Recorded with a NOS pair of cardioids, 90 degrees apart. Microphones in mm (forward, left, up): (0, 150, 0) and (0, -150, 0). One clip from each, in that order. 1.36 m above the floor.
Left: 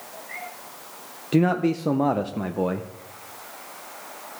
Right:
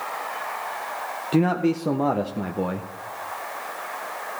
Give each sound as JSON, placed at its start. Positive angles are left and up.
{"t": 1.3, "sound": "a man speaking", "azimuth_deg": 5, "distance_m": 0.7}